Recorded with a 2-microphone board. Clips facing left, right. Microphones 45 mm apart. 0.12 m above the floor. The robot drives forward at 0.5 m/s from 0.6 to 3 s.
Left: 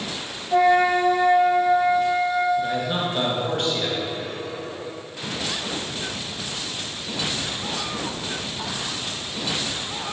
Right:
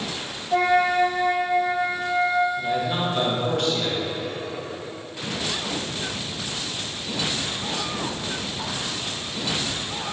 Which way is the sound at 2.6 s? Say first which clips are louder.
Left 1 dB; 35° left (ahead or behind).